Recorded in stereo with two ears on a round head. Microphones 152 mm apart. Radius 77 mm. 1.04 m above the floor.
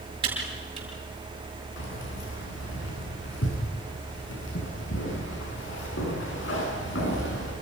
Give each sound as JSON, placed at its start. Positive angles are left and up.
{"t": 0.2, "sound": "typing on a keyboard", "side_deg": -30, "distance_m": 7.5}
{"t": 1.8, "sound": "keys jangling", "side_deg": 85, "distance_m": 9.0}